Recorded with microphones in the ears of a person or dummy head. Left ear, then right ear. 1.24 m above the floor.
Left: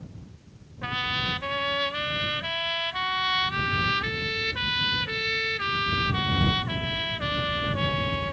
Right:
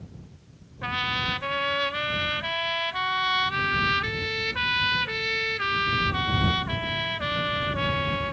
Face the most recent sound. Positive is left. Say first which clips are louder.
# right 1 dB
turn(degrees=-10)  # may be behind; listen again after turning